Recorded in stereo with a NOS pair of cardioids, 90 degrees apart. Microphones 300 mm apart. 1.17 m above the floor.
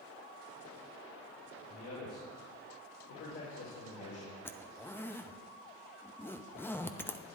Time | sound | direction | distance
1.7 | a man speaking | 65° left | 5 m
4.5 | a zipper | 5° left | 0.7 m